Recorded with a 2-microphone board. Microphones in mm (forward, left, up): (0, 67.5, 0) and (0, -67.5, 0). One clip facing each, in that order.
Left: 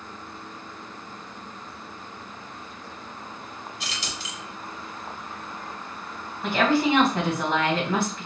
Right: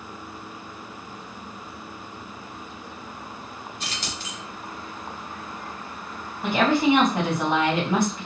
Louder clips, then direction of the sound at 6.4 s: Right 2 dB; 15° right (ahead or behind).